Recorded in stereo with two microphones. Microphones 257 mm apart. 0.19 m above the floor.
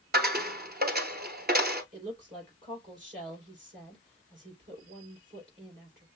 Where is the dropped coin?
40° right (ahead or behind), 0.8 m.